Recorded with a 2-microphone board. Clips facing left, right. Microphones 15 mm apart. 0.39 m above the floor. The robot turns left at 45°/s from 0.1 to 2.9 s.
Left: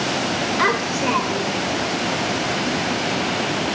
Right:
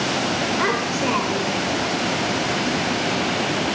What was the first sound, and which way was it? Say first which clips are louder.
A child speaking: left 2 dB; 30° left.